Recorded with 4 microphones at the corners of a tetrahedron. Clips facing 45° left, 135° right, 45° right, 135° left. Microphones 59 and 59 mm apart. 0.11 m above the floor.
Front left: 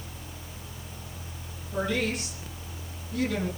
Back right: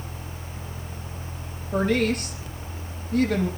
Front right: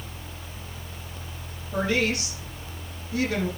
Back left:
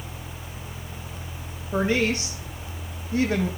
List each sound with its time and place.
1.7 s a woman speaking: 170° right, 4.5 m